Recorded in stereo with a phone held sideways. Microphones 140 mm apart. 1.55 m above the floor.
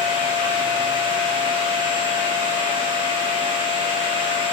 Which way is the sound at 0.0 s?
35° right (ahead or behind).